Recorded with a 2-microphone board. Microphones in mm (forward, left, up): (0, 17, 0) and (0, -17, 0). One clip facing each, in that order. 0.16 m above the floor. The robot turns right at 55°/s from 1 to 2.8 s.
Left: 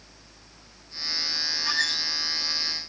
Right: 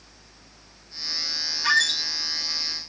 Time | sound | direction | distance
1.6 | a squeak | 75° right (ahead or behind) | 0.5 m